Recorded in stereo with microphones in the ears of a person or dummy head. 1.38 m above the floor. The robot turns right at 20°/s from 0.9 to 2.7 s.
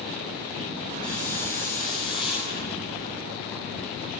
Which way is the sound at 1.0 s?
20° left (ahead or behind).